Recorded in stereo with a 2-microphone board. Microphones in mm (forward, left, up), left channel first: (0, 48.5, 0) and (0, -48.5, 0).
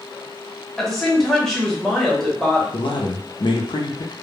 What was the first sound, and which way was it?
A woman speaking, 5° left (ahead or behind).